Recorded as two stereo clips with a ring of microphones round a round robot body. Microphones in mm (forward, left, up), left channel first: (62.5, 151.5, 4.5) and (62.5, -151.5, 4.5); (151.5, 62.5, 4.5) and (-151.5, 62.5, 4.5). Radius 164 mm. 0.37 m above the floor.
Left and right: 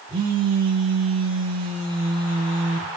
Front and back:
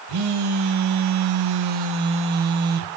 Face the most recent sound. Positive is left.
turn(degrees=-165)